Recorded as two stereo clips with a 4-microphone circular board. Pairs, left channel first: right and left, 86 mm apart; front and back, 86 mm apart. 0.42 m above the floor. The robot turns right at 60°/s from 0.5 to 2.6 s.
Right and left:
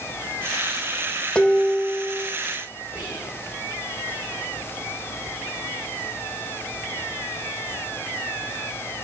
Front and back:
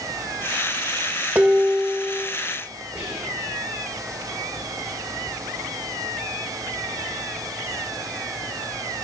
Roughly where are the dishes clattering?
Behind right.